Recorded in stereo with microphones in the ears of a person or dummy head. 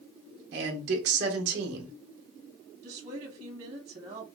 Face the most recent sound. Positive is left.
turn(degrees=-35)  # may be behind; listen again after turning